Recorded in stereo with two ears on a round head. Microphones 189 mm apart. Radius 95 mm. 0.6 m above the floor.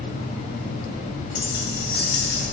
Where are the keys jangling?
60° left (ahead or behind), 3 m; by 2.5 s 75° left (ahead or behind), 2.5 m.